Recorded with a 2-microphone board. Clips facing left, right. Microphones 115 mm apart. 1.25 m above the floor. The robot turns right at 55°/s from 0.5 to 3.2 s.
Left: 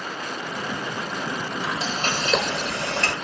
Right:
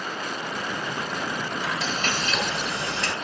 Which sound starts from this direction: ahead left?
Frying, at 1.6 s.